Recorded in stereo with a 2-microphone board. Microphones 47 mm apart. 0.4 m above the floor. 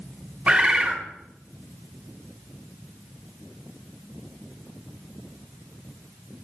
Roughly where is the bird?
Centre.